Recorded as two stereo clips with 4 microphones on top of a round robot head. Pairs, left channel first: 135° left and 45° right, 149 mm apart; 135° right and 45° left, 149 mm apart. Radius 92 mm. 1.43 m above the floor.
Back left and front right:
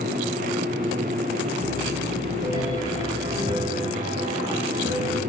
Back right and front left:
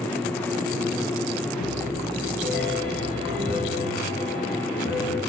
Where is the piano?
110° right, 8 m.